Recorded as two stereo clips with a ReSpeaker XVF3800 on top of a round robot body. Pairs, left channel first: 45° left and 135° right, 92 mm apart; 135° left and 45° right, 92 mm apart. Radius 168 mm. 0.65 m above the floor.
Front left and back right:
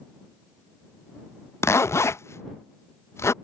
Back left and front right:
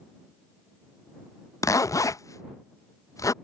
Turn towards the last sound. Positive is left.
turn(degrees=95)